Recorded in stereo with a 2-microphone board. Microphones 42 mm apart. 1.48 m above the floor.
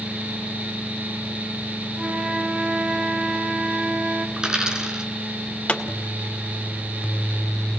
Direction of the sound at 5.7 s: 35° left (ahead or behind).